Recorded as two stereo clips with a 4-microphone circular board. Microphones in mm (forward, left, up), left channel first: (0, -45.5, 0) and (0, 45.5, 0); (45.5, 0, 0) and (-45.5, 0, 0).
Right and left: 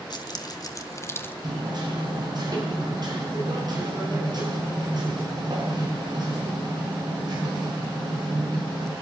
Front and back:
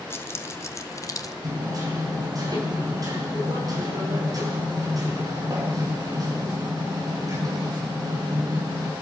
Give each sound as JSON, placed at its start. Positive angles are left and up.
{"t": 0.1, "sound": "keys jangling", "azimuth_deg": -60, "distance_m": 1.5}
{"t": 1.4, "sound": "hammering", "azimuth_deg": 130, "distance_m": 6.0}